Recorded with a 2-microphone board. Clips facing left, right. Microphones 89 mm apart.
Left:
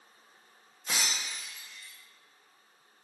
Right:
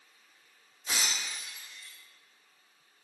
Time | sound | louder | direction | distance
0.9 | breaking glass | even | 55° left (ahead or behind) | 1.8 m